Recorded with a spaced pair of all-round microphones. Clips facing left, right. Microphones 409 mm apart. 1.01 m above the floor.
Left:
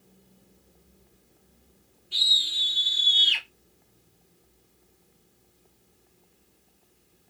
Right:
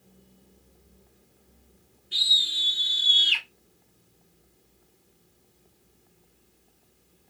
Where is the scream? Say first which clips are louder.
Right 1 dB; 30° right (ahead or behind), 0.7 m; by 3.5 s 20° right (ahead or behind), 0.5 m.